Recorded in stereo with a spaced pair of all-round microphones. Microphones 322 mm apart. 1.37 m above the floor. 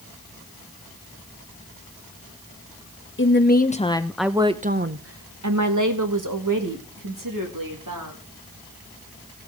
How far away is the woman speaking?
About 1.1 m.